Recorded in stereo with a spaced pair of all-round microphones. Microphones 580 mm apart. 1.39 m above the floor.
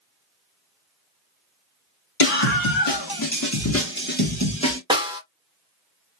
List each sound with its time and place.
2.2 s a scream: 65° left (ahead or behind), 0.9 m; by 4.8 s 10° left (ahead or behind), 1.5 m
4.9 s a snare drum: 10° right (ahead or behind), 0.8 m